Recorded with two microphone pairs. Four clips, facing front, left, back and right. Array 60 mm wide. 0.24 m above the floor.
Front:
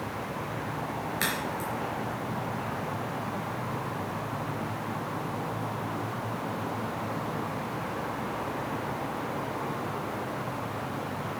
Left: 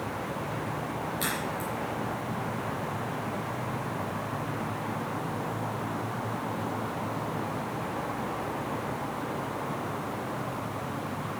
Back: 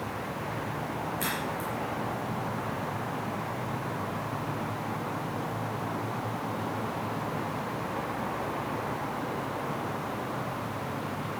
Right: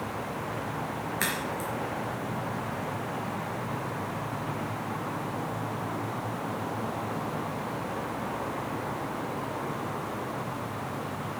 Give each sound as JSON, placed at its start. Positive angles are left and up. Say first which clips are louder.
{"t": 1.2, "sound": "a crack", "louder": "right 2 dB, front 1 dB", "azimuth_deg": -55, "distance_m": 4.5}